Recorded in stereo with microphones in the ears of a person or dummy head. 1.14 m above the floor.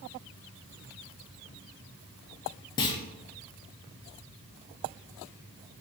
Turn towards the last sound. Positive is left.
turn(degrees=25)  # may be behind; listen again after turning